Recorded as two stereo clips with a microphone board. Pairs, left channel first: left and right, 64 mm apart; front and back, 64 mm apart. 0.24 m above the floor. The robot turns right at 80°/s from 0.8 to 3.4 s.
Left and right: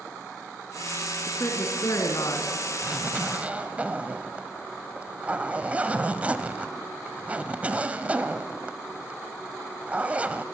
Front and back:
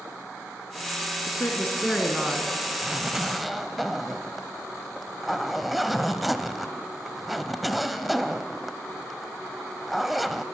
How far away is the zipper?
About 1.0 m.